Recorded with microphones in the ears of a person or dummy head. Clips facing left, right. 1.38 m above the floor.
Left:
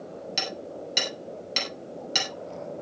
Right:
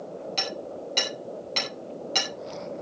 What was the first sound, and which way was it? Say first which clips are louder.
Hammering: right 2 dB; 15° left (ahead or behind).